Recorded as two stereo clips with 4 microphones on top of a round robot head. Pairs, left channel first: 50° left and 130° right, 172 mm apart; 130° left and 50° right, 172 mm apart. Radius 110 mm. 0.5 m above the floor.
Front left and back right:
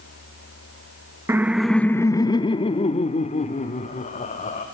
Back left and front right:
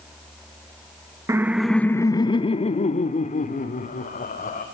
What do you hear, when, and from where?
1.3 s laughter: 85° right, 0.7 m; by 4.6 s 95° left, 1.9 m